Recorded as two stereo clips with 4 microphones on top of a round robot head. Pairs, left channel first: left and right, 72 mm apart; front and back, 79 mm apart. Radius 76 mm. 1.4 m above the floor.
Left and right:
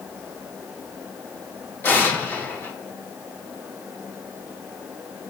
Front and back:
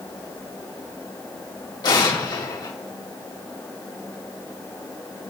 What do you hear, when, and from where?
1.8 s an explosion: 35° left, 3.5 m